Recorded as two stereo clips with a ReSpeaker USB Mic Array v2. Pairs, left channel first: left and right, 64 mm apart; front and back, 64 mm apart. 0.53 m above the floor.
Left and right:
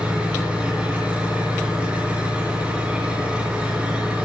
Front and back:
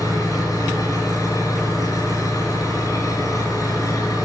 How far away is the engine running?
About 5 m.